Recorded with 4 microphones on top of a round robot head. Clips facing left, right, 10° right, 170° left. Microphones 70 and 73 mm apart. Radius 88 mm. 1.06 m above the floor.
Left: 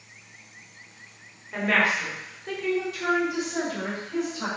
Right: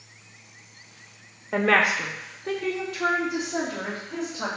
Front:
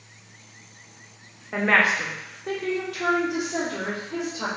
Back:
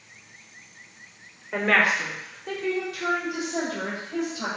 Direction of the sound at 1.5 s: 95° right.